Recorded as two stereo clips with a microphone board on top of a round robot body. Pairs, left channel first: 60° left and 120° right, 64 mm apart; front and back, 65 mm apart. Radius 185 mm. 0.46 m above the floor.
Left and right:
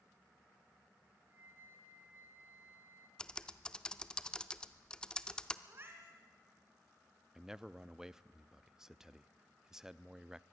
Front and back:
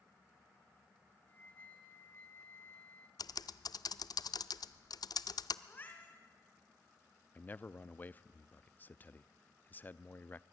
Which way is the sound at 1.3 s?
60° right.